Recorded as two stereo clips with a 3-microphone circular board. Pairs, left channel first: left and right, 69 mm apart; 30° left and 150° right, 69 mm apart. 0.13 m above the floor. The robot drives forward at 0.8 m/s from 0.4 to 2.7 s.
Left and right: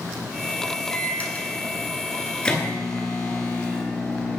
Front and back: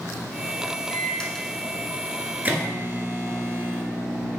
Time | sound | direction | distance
0.9 | a microwave | 55° left | 1.0 m